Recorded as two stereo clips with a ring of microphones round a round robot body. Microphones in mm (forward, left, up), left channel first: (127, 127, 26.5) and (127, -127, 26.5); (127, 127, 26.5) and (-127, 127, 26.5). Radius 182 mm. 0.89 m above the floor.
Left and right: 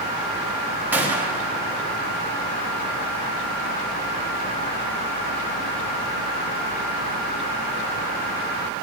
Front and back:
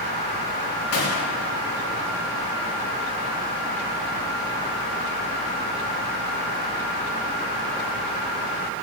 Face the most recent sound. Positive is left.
turn(degrees=-5)